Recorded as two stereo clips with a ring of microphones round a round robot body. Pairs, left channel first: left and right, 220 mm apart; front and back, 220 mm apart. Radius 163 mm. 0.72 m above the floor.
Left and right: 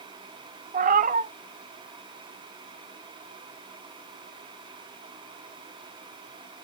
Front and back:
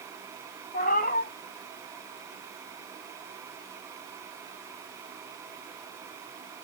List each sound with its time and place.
0.7 s a cat meowing: 50° right, 0.7 m